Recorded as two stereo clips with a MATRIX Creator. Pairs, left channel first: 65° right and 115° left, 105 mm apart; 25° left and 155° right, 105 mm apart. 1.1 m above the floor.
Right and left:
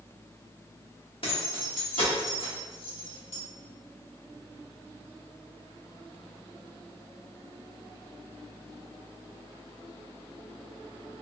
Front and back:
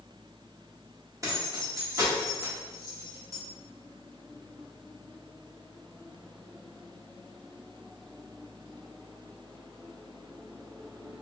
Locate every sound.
1.2 s keys jangling: 100° right, 1.6 m